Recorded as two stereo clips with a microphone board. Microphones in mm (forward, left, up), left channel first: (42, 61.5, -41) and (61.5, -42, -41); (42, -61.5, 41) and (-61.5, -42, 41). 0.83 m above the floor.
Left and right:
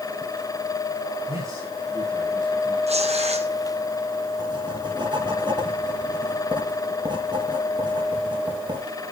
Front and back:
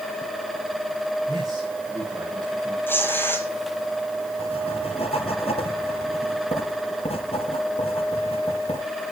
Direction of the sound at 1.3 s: 135° right.